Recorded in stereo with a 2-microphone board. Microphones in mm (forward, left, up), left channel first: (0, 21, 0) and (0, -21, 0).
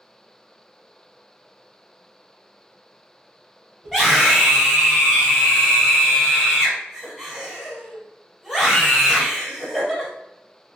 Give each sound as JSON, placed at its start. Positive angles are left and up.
{"t": 3.8, "sound": "a scream", "side_deg": -5, "distance_m": 1.8}